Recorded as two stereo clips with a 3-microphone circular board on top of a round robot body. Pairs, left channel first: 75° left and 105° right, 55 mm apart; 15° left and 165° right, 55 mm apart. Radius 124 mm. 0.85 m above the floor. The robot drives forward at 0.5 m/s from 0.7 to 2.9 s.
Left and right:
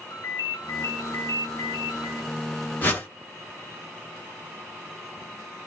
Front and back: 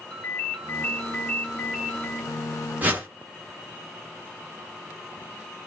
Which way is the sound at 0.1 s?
70° left.